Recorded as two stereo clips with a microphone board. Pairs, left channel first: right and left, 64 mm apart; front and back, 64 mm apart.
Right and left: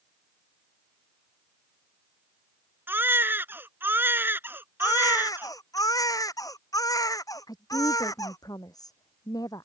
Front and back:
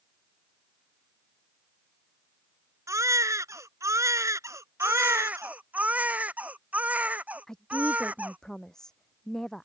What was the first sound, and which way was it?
A baby crying, 145° left.